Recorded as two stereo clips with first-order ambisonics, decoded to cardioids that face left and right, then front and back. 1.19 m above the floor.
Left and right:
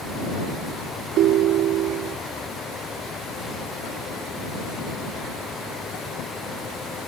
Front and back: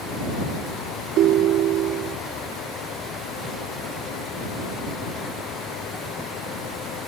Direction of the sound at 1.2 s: 135° right.